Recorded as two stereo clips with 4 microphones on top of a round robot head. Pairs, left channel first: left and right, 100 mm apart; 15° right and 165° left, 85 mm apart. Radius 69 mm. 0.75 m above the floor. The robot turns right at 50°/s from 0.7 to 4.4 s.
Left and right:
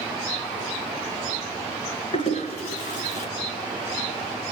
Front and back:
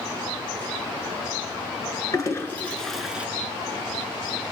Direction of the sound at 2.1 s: 35° left.